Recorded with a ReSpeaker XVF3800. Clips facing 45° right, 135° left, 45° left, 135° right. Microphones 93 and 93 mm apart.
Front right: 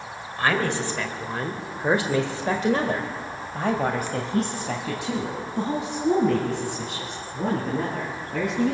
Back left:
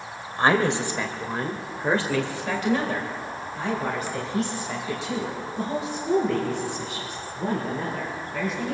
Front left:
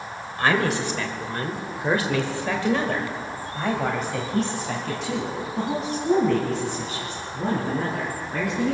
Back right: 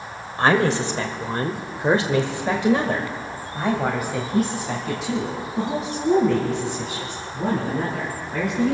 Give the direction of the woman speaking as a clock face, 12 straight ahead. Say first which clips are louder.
Back left 3 dB, back right 3 dB; 6 o'clock.